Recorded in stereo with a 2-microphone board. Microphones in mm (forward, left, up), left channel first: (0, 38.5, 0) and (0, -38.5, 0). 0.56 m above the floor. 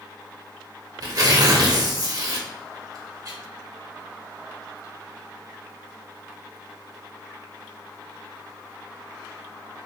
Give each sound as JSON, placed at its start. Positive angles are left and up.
{"t": 1.0, "sound": "tearing paper", "side_deg": -50, "distance_m": 0.8}